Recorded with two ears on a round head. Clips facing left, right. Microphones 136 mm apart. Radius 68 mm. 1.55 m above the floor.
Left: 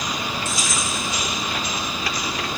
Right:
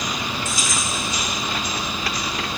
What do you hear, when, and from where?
0.5 s keys jangling: 40° right (ahead or behind), 4.5 m